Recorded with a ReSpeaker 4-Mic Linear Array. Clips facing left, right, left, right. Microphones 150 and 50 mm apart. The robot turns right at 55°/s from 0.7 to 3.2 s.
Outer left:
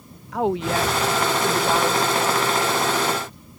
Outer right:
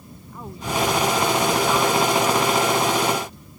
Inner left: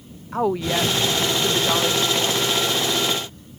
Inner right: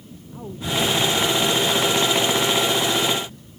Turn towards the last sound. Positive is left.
turn(degrees=-135)